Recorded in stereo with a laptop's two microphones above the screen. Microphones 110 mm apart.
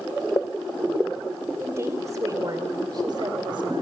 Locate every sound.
1.6 s a woman speaking: 25° right (ahead or behind), 3 m; by 3.8 s 55° right (ahead or behind), 3.5 m